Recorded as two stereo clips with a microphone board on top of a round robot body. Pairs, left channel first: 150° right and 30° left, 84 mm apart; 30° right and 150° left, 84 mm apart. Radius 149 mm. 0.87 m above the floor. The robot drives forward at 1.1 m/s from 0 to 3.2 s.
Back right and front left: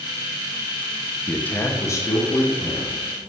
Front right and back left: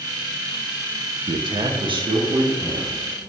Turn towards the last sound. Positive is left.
turn(degrees=170)